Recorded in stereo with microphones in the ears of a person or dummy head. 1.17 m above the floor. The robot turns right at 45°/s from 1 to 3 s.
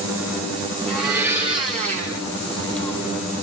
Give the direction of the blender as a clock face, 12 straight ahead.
6 o'clock.